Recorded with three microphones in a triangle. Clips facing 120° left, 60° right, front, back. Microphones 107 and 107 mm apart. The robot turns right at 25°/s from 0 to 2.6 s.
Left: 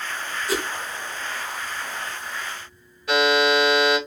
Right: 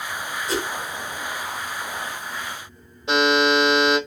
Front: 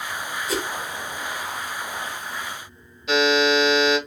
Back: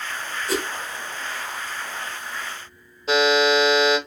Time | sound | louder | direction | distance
0.5 | a whoosh | even, back 2 dB | 155° right | 2.5 m
3.1 | a buzzer | even, back 1 dB | 125° right | 1.8 m